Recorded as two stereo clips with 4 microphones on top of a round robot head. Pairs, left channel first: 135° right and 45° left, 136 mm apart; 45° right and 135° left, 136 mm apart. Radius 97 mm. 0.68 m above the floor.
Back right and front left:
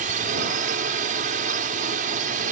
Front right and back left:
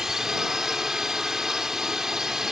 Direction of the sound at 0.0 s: 50° left.